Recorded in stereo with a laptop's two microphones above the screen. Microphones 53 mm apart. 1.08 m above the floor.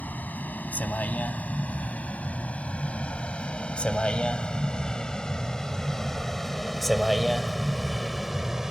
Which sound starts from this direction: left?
A vehicle, at 0.0 s.